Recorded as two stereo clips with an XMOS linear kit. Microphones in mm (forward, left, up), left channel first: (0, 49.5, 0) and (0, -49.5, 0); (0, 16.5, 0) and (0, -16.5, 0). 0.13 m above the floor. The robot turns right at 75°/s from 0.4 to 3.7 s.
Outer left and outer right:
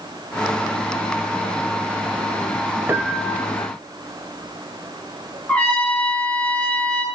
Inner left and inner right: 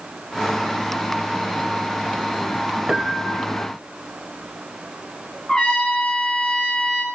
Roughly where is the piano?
Ahead right.